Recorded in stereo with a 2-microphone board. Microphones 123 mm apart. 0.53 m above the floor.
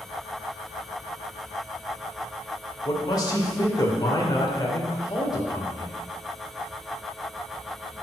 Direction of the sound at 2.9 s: 35° left (ahead or behind).